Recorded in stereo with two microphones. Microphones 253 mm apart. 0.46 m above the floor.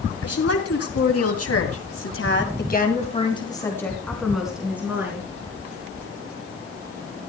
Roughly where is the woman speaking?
Left.